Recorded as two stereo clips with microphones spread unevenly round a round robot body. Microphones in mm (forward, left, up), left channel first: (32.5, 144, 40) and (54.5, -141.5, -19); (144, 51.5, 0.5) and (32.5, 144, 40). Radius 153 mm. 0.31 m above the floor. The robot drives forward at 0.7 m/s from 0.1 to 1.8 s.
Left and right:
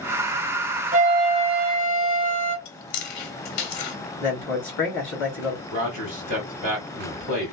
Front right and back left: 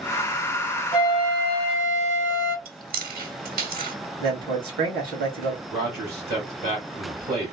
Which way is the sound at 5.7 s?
160° left.